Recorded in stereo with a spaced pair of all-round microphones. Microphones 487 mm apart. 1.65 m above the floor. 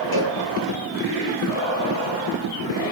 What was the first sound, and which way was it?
A cowbell, 60° left (ahead or behind).